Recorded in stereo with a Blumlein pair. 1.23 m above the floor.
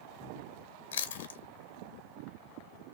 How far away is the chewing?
About 0.6 m.